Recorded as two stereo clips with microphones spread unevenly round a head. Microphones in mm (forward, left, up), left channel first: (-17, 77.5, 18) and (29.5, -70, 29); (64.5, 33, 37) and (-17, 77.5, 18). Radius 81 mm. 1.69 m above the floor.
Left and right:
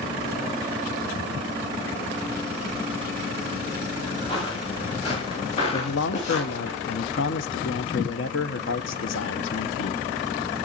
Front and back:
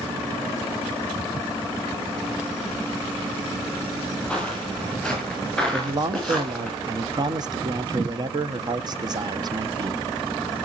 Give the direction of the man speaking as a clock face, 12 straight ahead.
8 o'clock.